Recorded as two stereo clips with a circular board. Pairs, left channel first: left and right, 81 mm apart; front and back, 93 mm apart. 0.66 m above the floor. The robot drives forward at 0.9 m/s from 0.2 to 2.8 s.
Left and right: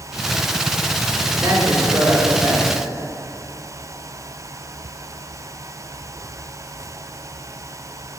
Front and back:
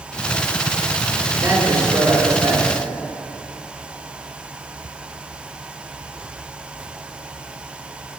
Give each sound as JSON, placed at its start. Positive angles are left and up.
{"t": 1.3, "sound": "a man speaking", "azimuth_deg": -130, "distance_m": 2.5}